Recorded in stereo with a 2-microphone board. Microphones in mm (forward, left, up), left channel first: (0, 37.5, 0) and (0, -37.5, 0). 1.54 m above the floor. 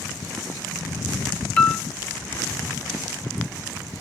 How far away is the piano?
About 0.5 m.